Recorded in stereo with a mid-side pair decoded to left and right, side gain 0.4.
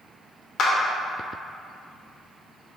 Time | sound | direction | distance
0.6 | a clap | 65° left | 1.8 m